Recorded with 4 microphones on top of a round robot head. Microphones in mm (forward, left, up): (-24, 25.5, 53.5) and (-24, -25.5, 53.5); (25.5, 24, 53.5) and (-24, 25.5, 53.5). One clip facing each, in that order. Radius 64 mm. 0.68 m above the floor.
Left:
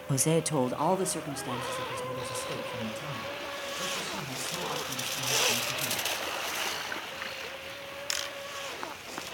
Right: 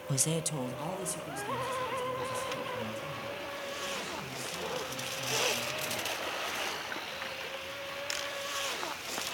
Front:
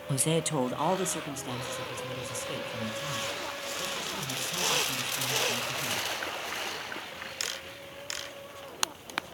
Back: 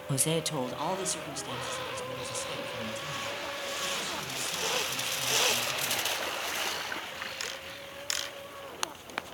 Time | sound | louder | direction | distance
0.1 | a man speaking | left 7 dB, front 2 dB | 105° left | 0.5 m